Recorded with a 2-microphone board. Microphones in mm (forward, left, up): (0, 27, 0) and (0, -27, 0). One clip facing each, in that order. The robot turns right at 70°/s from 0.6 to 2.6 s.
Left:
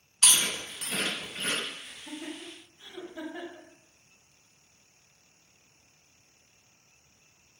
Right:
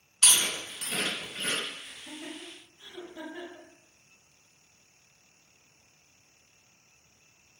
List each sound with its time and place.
0.2 s chewing: 5° left (ahead or behind), 1.2 m; by 1.6 s 30° left (ahead or behind), 1.2 m
1.8 s laughter: 50° left (ahead or behind), 1.1 m; by 3.7 s 25° left (ahead or behind), 1.1 m